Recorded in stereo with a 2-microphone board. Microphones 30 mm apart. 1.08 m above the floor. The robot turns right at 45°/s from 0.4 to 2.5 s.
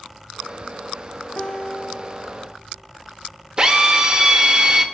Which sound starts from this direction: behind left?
A guitar, at 1.4 s.